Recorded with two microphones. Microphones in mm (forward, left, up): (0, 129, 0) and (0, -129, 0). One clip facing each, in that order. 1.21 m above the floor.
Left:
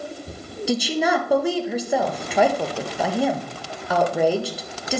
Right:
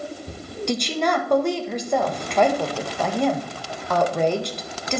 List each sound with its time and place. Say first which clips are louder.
0.7 s a woman speaking: left 2 dB; 5° left (ahead or behind), 1.3 m